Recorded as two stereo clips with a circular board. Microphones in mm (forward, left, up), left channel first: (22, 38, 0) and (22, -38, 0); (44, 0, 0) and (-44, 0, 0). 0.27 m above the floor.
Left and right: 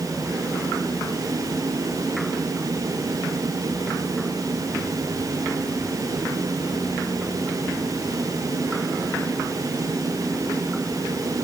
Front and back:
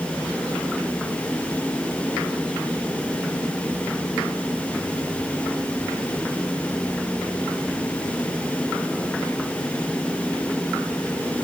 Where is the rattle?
I don't hear a rattle.